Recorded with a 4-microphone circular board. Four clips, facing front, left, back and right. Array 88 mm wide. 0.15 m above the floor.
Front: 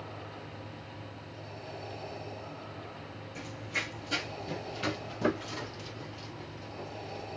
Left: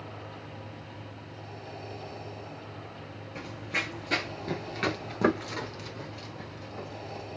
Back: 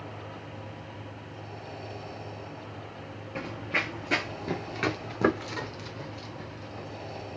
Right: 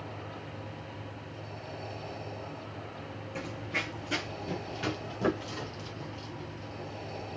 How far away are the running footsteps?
About 0.7 m.